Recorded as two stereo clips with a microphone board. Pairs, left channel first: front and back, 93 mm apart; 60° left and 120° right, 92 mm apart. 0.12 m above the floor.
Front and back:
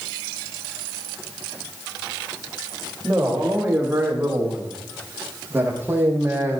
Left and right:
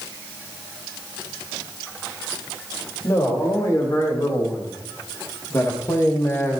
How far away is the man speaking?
About 7.5 m.